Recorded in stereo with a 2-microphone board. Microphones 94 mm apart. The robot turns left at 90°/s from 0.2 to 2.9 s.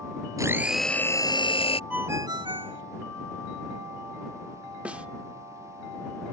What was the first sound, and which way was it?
A blender, 145° right.